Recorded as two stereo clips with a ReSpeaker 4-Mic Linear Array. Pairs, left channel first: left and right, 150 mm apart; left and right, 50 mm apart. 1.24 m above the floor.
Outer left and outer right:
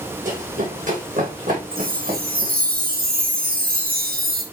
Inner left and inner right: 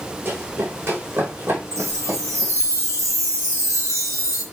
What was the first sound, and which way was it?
Running footsteps, 60° right (ahead or behind).